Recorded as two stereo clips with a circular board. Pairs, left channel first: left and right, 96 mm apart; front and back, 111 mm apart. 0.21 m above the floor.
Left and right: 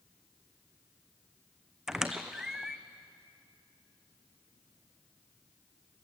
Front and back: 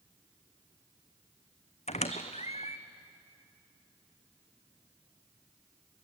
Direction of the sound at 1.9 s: 5° right.